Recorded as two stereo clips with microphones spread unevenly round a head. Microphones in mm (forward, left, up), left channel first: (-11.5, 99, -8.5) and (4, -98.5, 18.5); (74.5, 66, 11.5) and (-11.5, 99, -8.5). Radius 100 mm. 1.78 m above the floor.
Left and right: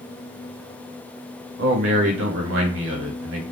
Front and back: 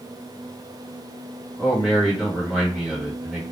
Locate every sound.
1.6 s a man speaking: 110° right, 1.1 m